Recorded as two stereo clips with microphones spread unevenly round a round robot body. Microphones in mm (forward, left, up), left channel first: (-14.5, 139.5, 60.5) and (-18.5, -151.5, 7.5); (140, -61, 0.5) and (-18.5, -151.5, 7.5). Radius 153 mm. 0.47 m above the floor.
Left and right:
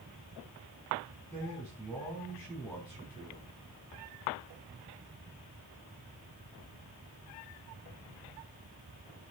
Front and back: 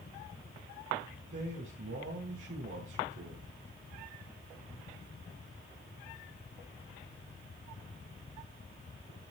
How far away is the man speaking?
About 4.5 m.